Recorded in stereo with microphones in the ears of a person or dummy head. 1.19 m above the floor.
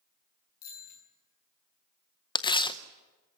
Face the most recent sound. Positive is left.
turn(degrees=25)  # may be behind; listen again after turning